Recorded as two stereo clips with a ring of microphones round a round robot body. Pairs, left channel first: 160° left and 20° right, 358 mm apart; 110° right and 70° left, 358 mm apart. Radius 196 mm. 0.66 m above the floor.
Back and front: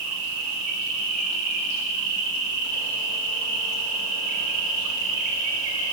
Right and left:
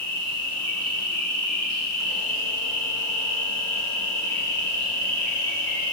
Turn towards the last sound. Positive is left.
turn(degrees=-10)